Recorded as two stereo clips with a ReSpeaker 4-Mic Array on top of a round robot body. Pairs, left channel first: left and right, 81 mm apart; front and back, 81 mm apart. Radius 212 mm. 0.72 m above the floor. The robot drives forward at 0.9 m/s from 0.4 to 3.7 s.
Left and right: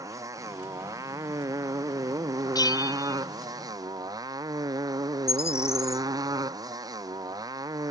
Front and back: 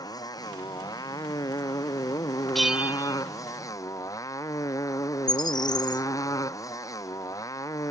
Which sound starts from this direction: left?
A bell, at 2.5 s.